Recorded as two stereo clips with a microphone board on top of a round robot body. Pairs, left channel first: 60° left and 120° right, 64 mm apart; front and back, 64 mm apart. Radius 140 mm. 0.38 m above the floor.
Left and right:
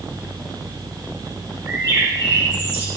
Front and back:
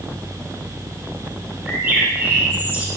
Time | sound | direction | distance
1.6 | a bird | 120° right | 5 m